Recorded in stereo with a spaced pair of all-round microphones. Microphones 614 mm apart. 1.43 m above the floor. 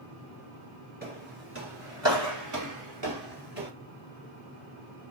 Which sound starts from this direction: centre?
Footsteps, at 1.0 s.